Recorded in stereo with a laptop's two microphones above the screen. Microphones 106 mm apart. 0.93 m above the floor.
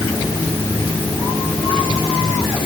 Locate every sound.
Only background noise.